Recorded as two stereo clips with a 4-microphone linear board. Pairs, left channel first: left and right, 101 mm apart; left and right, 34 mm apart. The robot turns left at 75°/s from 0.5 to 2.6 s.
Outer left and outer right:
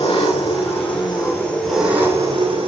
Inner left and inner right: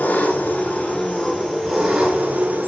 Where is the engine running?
90° left, 7.5 m; by 2.7 s 65° right, 7.5 m.